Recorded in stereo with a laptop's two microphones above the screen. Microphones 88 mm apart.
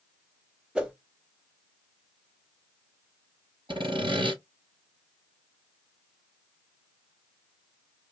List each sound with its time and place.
0.8 s a whoosh: 10° right (ahead or behind), 1.1 m
3.7 s sawing: 75° right (ahead or behind), 3 m